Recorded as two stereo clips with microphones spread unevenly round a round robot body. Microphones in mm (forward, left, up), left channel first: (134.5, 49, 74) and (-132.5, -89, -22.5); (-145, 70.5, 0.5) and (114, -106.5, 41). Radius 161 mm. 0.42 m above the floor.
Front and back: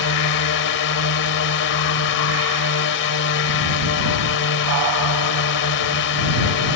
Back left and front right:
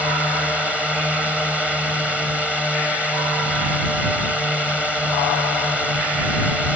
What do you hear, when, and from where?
0.0 s a drone: 55° left